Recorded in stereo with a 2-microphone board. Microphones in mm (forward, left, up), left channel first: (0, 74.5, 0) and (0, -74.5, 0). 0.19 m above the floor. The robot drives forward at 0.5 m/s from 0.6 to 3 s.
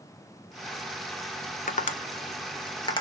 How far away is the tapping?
About 0.6 m.